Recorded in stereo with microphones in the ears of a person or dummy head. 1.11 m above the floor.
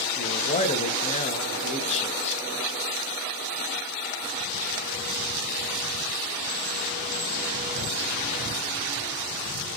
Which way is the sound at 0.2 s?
30° left (ahead or behind).